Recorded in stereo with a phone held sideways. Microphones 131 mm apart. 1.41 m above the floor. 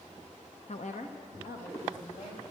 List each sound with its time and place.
0.7 s a woman speaking: 60° left (ahead or behind), 0.6 m; by 2.4 s 80° left, 2 m